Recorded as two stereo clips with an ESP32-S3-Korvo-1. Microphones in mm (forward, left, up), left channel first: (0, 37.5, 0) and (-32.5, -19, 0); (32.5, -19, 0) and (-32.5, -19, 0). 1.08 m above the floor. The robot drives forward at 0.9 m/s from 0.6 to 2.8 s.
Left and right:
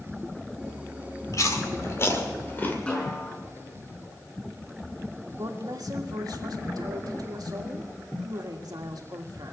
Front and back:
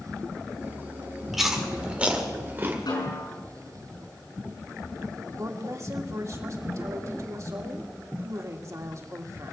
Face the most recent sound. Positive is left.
turn(degrees=-140)